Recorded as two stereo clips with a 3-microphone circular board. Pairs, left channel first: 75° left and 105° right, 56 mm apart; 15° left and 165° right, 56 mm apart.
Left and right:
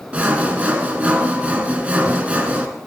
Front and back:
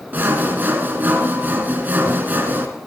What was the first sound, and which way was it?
Sawing, 150° right.